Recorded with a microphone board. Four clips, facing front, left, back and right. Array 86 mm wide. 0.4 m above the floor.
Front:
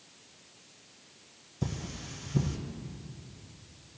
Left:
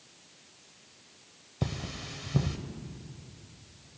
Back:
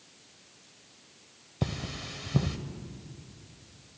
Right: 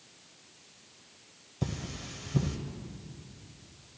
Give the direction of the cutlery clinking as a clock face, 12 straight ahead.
7 o'clock.